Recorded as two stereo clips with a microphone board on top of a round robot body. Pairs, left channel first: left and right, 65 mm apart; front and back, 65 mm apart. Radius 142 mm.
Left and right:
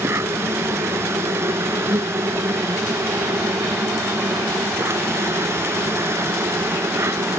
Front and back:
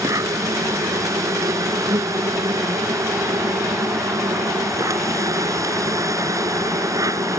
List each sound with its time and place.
0.0 s an insect: 145° right